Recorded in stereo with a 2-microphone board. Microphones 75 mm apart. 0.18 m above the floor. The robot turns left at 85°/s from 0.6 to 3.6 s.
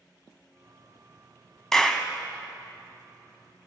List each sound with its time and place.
1.7 s a clap: 5° left (ahead or behind), 0.9 m; by 2.1 s 15° left (ahead or behind), 0.9 m